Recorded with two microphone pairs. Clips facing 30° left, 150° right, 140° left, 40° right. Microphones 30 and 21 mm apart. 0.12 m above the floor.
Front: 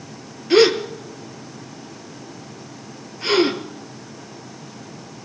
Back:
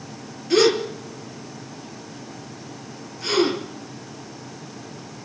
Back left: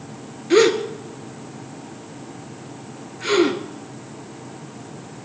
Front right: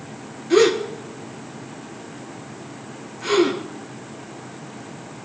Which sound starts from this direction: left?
A gasp, at 0.5 s.